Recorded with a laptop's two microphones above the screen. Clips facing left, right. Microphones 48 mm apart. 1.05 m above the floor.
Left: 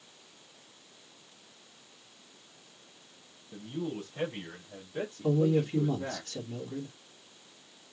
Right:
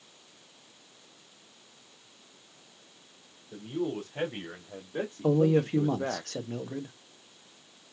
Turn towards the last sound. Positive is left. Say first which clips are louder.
# right 3 dB
turn(degrees=-60)  # may be behind; listen again after turning